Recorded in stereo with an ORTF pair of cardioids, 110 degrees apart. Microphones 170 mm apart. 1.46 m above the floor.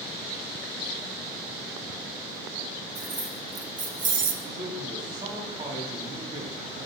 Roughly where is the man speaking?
Ahead right.